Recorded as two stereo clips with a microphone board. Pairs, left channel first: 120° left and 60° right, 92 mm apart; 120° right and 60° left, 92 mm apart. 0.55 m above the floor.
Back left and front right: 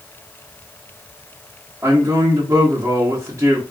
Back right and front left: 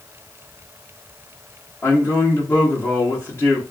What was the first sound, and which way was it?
A man speaking, 90° right.